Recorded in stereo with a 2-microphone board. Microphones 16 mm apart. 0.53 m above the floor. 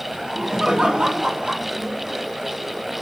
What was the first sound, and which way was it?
Laughter, 70° right (ahead or behind).